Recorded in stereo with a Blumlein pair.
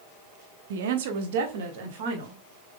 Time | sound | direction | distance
0.7 | a woman speaking | 55° right | 0.7 m